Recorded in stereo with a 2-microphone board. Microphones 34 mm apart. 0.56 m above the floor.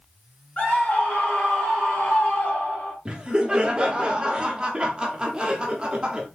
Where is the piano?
I don't hear a piano.